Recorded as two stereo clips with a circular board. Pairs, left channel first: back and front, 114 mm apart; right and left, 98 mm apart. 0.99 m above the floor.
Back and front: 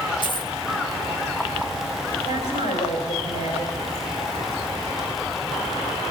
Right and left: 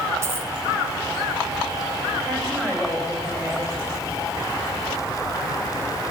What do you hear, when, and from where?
0.2 s a dropped coin: 145° left, 0.8 m
2.2 s a woman speaking: 165° right, 6 m